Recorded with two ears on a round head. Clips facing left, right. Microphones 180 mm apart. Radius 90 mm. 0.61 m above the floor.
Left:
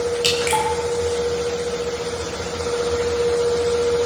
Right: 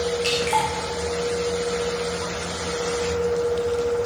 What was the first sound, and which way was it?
Dripping, 45° left (ahead or behind).